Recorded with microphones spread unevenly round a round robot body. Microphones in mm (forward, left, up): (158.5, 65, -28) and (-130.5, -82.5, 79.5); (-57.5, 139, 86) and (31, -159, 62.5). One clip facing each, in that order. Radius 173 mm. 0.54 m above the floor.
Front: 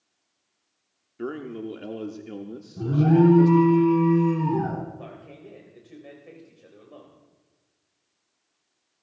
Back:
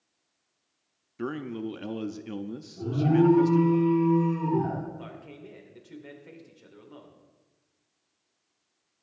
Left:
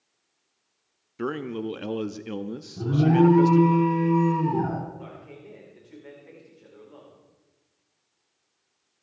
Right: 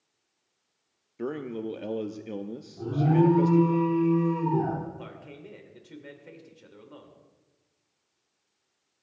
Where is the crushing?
No crushing in this recording.